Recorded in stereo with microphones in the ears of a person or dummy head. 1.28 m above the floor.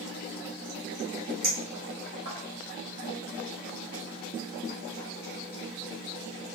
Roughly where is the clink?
Right.